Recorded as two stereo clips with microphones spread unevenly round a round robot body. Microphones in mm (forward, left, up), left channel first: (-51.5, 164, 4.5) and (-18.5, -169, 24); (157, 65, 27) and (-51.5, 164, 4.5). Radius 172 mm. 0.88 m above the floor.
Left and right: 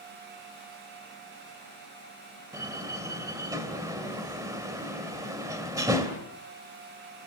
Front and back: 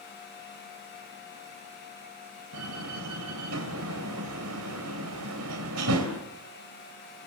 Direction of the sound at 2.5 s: 165° right.